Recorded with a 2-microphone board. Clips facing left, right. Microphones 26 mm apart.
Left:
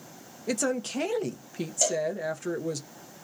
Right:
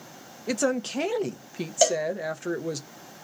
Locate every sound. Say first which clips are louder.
0.5 s a woman speaking: right 3 dB; 20° right (ahead or behind), 0.5 m
1.8 s a cowbell: right 5 dB; 45° right (ahead or behind), 0.9 m